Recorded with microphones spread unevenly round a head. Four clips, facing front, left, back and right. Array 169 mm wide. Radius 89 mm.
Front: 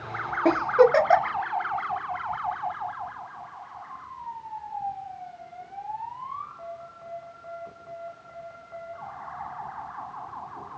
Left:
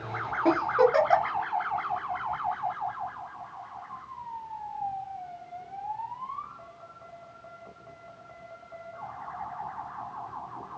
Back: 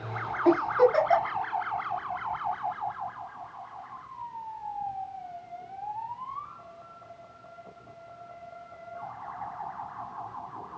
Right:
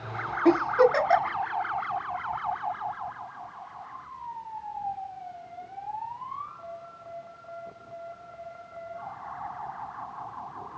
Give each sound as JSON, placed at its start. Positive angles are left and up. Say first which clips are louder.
{"t": 0.5, "sound": "a giggle", "louder": "right 2 dB, front 3 dB", "azimuth_deg": -10, "distance_m": 1.1}